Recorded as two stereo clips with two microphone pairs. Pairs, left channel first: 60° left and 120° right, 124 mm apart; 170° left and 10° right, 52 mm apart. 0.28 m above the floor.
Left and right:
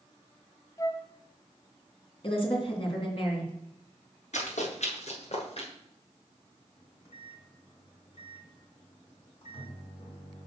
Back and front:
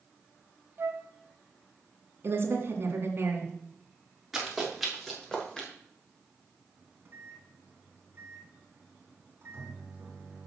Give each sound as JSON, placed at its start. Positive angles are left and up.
{"t": 0.8, "sound": "a flute", "azimuth_deg": 0, "distance_m": 0.6}
{"t": 2.2, "sound": "a woman speaking", "azimuth_deg": 25, "distance_m": 2.5}
{"t": 4.3, "sound": "running footsteps", "azimuth_deg": 75, "distance_m": 5.0}
{"t": 6.8, "sound": "a microwave", "azimuth_deg": 25, "distance_m": 2.5}